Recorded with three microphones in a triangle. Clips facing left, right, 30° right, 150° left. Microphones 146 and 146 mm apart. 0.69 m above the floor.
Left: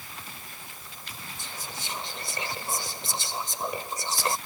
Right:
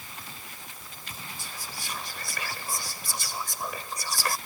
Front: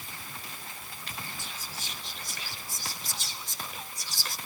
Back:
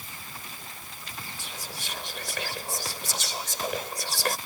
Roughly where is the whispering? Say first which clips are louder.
Left 1 dB, back 2 dB; behind left.